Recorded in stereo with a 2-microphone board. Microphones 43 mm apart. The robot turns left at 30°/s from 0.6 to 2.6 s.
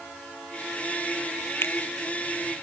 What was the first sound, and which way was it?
A finger snap, 60° left (ahead or behind).